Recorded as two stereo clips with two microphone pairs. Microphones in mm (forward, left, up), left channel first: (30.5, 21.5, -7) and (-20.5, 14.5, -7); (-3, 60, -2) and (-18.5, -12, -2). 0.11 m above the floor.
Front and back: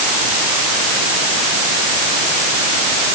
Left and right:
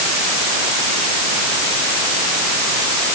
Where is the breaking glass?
No breaking glass in this recording.